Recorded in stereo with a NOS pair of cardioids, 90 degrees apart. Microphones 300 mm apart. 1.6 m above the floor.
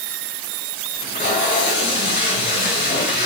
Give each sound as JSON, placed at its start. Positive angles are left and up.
{"t": 0.9, "sound": "tape being pulled", "azimuth_deg": 35, "distance_m": 5.5}